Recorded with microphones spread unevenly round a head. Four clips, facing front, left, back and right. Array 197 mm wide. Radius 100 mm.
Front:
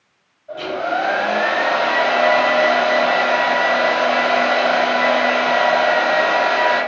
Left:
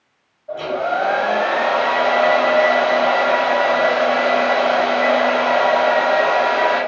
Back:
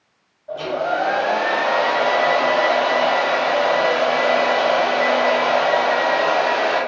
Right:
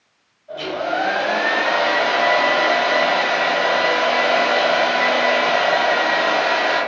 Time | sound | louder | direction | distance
0.5 | a hair dryer | left 2 dB, even | 145° left | 2.5 m